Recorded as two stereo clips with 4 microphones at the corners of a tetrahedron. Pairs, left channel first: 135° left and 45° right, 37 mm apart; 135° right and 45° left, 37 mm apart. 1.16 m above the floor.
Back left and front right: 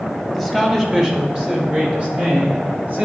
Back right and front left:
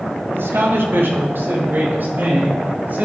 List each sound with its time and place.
0.3 s a man speaking: 40° left, 1.6 m; by 3.0 s 5° left, 2.5 m